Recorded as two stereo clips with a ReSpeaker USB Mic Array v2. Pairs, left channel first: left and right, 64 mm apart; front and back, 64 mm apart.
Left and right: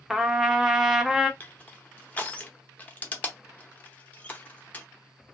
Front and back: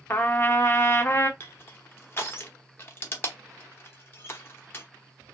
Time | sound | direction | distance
0.1 | a trumpet | 10° right | 0.6 m
1.4 | crushing | 35° left | 0.8 m